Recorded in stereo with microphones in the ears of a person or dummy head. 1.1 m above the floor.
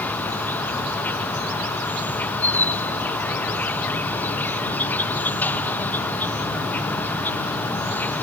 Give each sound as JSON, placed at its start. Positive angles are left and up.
{"t": 0.0, "sound": "an insect", "side_deg": 10}